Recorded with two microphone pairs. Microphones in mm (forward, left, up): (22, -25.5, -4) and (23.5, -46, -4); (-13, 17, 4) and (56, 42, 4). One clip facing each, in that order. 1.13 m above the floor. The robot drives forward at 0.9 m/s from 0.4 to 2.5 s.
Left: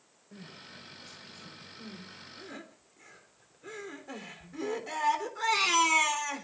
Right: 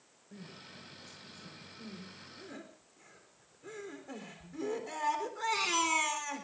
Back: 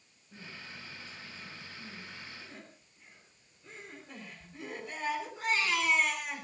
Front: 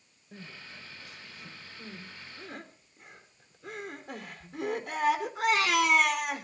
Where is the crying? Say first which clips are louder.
Left 2 dB, front 1 dB; 15° left, 5.5 m; by 6.4 s 25° left, 3.5 m.